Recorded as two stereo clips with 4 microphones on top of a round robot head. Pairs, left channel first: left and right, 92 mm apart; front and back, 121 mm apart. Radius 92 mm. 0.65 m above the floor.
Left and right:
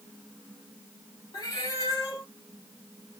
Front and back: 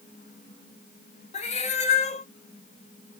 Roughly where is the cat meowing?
Ahead left.